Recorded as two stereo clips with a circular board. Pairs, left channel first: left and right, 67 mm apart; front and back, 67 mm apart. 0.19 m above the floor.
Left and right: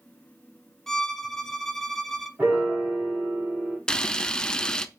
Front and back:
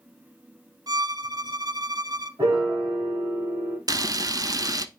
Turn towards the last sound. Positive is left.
turn(degrees=165)